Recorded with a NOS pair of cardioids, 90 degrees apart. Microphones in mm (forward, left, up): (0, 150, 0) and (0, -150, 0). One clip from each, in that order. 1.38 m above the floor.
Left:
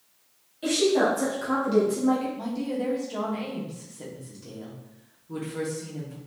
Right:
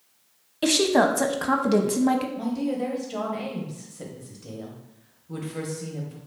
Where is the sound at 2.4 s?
15° right, 1.1 m.